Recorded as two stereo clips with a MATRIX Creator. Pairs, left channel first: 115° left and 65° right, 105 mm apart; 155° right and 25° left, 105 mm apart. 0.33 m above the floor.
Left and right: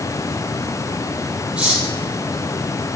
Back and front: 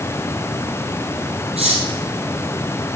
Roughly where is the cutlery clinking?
Ahead.